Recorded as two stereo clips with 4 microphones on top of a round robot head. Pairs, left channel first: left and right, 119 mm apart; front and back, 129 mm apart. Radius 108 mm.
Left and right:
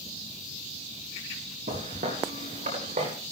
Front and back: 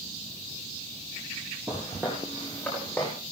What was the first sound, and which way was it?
Footsteps, 95° right.